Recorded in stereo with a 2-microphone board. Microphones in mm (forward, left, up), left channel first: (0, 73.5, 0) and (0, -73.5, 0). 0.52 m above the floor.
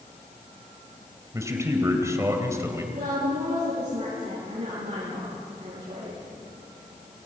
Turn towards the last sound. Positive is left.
turn(degrees=-50)  # may be behind; listen again after turning